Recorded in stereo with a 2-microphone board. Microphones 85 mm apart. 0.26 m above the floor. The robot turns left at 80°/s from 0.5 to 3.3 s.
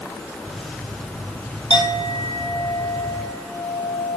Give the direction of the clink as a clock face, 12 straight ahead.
8 o'clock.